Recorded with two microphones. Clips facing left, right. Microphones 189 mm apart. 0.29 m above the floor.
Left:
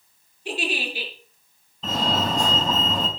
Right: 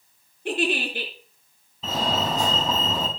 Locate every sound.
0.5 s a giggle: 55° right (ahead or behind), 5 m
1.8 s a fire alarm: 5° right (ahead or behind), 4 m